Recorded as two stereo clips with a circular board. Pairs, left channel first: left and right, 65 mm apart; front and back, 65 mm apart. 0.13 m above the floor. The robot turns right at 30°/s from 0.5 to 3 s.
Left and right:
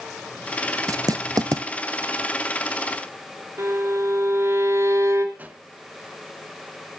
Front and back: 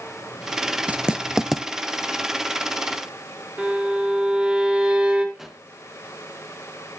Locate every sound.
0.9 s writing: 115° right, 0.8 m; by 1.6 s 90° right, 0.8 m
3.6 s a violin: 110° right, 2.5 m
5.3 s a pop: 100° right, 1.8 m